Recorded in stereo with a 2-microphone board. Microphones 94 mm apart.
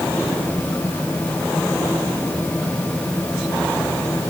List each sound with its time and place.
Only background noise.